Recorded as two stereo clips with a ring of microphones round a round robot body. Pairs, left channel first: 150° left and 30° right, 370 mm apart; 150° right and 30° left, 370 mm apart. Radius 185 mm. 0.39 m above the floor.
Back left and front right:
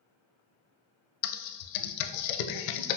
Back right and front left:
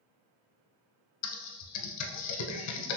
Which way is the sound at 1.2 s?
160° left.